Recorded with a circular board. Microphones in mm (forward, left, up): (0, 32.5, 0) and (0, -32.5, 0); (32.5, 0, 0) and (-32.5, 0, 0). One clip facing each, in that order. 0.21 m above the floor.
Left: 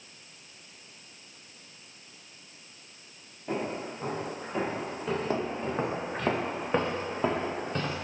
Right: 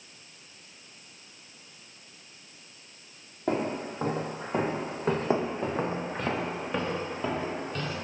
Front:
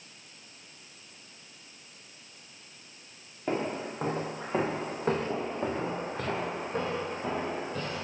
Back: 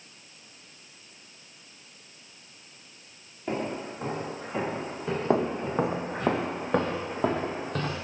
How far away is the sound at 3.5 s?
About 1.9 m.